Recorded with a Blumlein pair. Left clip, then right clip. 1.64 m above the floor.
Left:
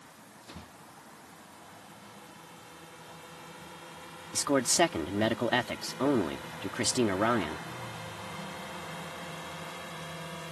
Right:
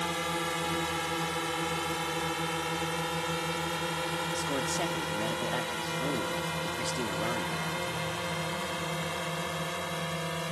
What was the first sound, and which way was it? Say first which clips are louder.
A drone: right 21 dB; 45° right.